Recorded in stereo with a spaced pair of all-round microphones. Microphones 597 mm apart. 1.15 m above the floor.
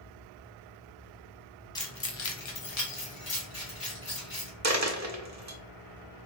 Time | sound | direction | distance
1.8 | keys jangling | 5° left (ahead or behind) | 0.6 m
4.6 | a dropped coin | 30° right (ahead or behind) | 0.5 m